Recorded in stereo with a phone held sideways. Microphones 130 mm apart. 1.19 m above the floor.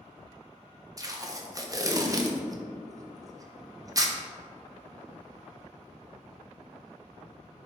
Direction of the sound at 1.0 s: 25° right (ahead or behind).